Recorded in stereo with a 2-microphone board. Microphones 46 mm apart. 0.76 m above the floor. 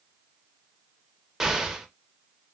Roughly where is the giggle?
No giggle in this recording.